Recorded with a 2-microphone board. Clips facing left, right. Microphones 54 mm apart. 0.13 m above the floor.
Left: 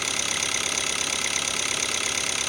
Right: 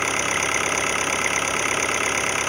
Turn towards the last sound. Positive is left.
turn(degrees=-30)  # may be behind; listen again after turning